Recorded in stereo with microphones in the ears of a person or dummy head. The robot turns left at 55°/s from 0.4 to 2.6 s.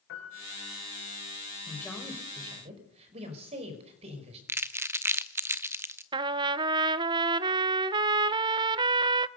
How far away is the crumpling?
About 0.7 m.